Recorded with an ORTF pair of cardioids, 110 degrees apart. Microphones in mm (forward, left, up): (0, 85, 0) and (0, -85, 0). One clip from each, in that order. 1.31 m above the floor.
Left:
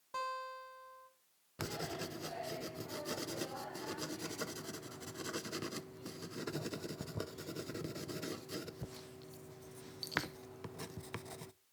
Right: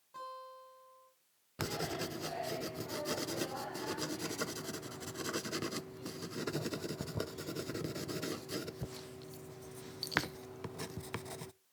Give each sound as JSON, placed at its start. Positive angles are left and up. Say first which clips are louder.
{"t": 0.1, "sound": "a guitar", "louder": "left 6 dB", "azimuth_deg": 70, "distance_m": 7.5}
{"t": 1.6, "sound": "writing", "louder": "right 4 dB", "azimuth_deg": -15, "distance_m": 0.5}